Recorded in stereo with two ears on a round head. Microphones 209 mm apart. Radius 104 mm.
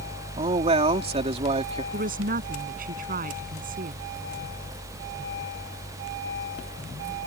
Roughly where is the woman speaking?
Right.